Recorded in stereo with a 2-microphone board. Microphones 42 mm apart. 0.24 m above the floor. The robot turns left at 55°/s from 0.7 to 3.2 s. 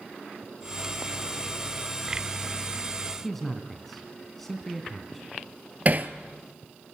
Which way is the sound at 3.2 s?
5° left (ahead or behind).